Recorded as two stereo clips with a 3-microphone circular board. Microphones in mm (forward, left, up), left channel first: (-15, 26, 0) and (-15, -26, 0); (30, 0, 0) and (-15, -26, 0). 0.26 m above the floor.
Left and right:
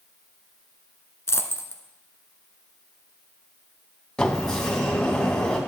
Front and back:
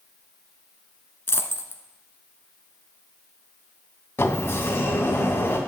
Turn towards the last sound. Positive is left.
turn(degrees=20)